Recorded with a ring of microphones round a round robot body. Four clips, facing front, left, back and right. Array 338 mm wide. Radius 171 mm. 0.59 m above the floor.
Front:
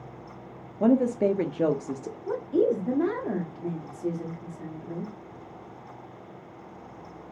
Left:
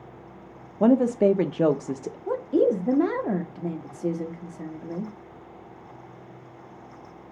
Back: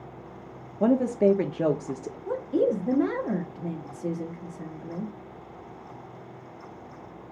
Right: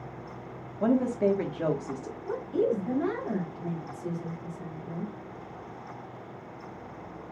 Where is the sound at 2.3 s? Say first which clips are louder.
Left 6 dB, front 1 dB; 85° left, 1.2 m.